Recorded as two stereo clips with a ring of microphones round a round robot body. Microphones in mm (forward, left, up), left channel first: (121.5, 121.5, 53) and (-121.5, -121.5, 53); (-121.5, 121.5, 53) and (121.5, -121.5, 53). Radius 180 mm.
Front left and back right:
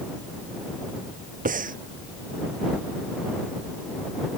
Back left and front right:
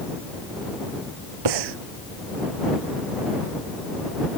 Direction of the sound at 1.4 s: 65° right.